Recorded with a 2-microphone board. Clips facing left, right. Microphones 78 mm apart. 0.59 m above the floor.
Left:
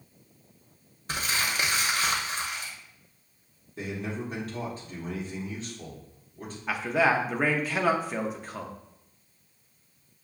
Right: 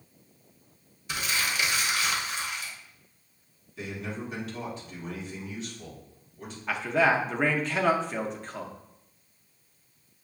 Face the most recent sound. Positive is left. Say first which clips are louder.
# even
turn(degrees=5)  # may be behind; listen again after turning